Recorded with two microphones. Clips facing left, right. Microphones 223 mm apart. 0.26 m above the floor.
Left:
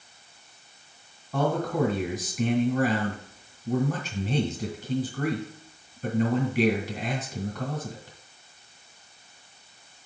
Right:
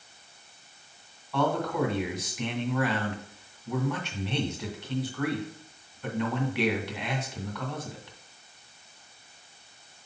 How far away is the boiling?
I don't hear boiling.